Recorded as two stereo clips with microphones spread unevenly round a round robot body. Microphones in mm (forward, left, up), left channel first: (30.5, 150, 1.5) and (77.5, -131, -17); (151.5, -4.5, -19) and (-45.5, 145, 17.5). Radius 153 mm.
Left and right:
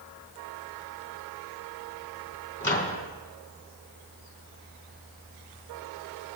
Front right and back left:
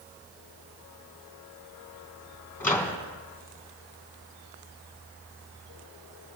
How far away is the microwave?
About 3 m.